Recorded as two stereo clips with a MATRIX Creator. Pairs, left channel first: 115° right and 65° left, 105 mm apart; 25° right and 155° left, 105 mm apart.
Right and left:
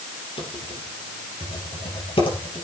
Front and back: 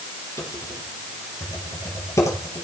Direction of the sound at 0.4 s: 80° right.